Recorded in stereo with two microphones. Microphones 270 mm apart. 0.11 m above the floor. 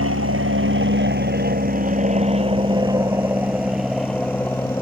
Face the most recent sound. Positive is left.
turn(degrees=10)  # may be behind; listen again after turning